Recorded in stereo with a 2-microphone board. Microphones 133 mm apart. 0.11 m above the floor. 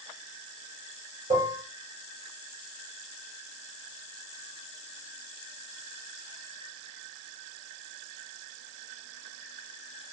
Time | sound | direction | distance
1.3 | dishes clattering | 65° right (ahead or behind) | 1.7 m